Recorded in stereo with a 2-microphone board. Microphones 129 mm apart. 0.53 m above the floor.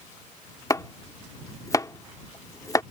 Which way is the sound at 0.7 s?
25° left (ahead or behind).